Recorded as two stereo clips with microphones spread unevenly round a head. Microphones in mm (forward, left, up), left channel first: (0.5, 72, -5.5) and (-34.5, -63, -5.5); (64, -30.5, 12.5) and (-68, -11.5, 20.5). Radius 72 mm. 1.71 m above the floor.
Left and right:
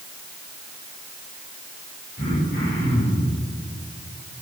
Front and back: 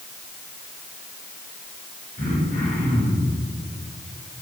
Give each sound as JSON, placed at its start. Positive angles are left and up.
{"t": 2.2, "sound": "throat clearing", "azimuth_deg": 35, "distance_m": 7.5}